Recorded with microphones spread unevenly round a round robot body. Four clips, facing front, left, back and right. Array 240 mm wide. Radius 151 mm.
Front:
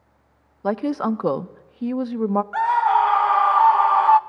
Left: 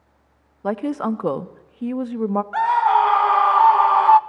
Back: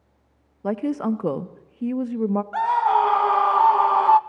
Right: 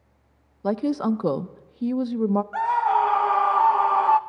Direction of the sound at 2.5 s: 150° right.